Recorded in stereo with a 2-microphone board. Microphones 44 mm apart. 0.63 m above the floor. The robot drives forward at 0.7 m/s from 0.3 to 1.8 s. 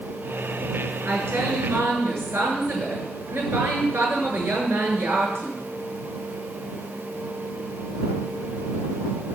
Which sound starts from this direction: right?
A woman speaking, at 1.1 s.